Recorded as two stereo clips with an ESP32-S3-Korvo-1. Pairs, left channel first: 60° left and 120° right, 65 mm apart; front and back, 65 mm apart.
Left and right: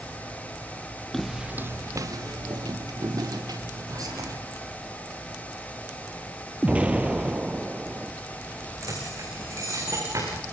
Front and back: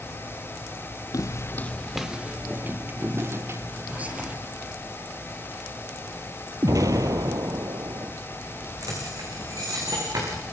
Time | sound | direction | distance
1.1 | footsteps | 25° right | 1.0 m
3.9 | whispering | 110° right | 4.5 m
6.6 | an explosion | 170° left | 1.1 m
8.8 | keys jangling | 155° right | 9.5 m